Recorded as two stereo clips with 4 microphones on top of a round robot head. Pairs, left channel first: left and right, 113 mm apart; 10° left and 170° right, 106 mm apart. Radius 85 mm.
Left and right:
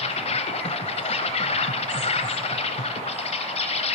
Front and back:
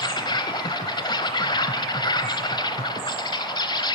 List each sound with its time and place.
0.0 s an insect: 60° left, 0.9 m